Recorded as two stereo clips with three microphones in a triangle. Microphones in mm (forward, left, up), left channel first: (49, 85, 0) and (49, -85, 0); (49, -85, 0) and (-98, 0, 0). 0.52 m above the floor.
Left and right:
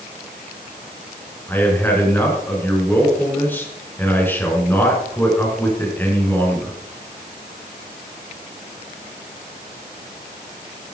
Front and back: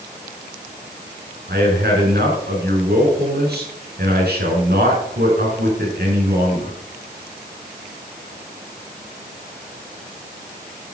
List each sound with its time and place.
1.5 s a man speaking: 170° left, 6 m